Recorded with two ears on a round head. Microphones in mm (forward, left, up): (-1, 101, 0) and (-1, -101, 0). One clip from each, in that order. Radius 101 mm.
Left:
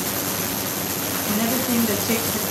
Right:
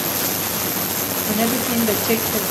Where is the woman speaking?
10° right (ahead or behind), 1.5 m.